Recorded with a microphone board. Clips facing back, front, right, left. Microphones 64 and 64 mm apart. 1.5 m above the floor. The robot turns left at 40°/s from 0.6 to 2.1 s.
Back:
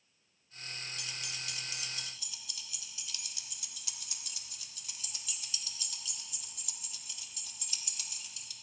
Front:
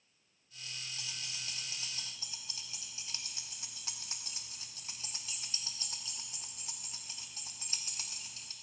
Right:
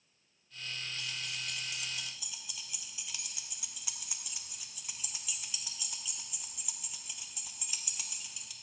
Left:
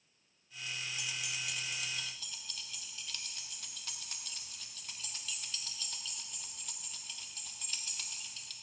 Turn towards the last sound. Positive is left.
turn(degrees=-15)